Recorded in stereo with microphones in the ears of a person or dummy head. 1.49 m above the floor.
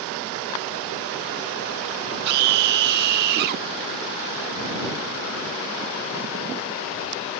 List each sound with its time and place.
2.2 s a scream: 55° right (ahead or behind)